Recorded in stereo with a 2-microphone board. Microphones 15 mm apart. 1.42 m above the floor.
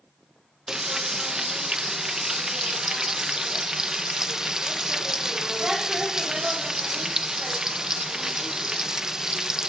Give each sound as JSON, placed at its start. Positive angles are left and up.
{"t": 0.7, "sound": "frying", "side_deg": -40, "distance_m": 0.6}